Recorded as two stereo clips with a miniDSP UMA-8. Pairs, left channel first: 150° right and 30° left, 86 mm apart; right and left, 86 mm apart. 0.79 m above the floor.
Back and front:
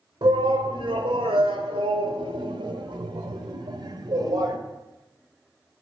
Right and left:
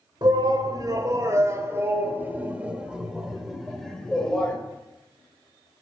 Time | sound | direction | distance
0.2 | a shout | 55° left | 2.5 m